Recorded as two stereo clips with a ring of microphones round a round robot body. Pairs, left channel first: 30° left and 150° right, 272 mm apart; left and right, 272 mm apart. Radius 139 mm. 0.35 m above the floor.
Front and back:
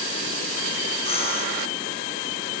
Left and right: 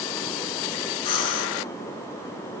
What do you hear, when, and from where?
1.1 s breathing: 100° left, 4 m